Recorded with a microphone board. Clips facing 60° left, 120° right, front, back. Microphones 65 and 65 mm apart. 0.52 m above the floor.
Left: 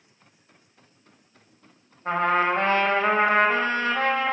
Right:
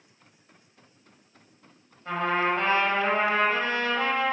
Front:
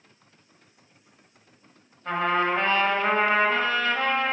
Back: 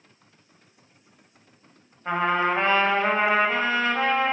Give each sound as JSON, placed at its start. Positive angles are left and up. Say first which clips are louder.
{"t": 2.0, "sound": "a trumpet", "louder": "left 4 dB, back 1 dB", "azimuth_deg": 110, "distance_m": 0.9}